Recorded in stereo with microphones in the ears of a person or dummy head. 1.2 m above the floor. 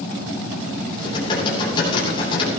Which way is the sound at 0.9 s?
35° left (ahead or behind).